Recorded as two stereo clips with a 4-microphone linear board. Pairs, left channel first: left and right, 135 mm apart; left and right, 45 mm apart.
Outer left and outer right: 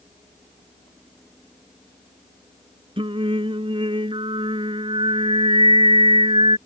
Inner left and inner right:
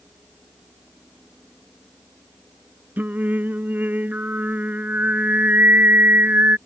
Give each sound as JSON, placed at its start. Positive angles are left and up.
{"t": 3.0, "sound": "singing", "side_deg": -40}